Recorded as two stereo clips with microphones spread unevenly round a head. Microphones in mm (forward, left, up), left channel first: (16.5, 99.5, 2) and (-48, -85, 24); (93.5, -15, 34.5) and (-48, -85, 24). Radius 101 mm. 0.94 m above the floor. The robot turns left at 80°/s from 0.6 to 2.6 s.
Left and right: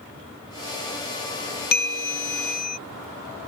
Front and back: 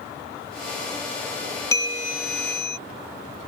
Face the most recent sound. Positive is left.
turn(degrees=30)